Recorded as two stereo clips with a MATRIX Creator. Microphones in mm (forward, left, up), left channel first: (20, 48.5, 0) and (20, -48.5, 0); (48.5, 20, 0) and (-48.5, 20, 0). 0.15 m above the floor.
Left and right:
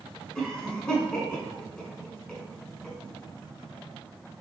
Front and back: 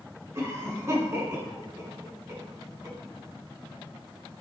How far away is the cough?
About 1.2 m.